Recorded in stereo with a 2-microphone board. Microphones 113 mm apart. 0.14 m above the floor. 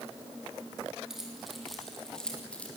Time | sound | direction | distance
1.1 | keys jangling | 5° right (ahead or behind) | 4.5 m